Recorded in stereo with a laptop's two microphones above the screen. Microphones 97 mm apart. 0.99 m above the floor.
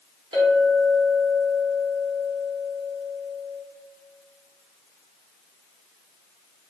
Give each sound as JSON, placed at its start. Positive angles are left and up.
{"t": 0.3, "sound": "a clink", "side_deg": -55, "distance_m": 0.8}